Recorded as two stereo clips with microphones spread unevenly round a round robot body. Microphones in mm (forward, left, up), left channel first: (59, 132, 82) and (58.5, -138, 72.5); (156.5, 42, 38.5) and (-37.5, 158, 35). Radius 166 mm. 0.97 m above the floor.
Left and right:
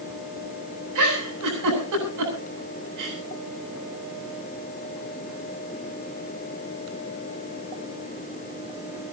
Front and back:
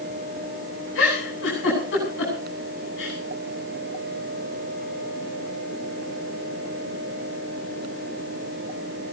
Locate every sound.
0.9 s a giggle: 85° right, 9.5 m